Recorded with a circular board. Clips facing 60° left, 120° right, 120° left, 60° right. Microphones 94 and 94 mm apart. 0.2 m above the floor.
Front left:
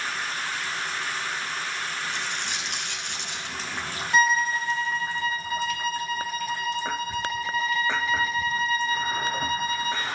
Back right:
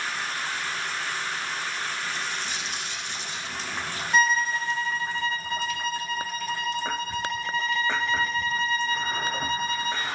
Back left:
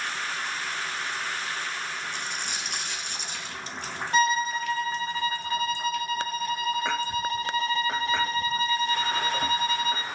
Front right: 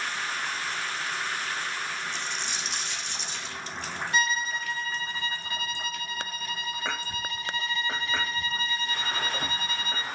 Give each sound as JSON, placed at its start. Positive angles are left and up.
{"t": 2.1, "sound": "a dropped coin", "azimuth_deg": 80, "distance_m": 1.8}
{"t": 4.1, "sound": "a violin", "azimuth_deg": 145, "distance_m": 0.7}